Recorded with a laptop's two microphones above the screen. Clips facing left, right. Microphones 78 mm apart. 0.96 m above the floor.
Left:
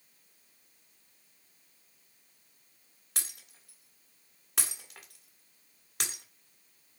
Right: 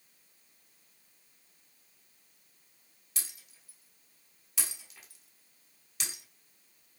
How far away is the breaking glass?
About 1.6 m.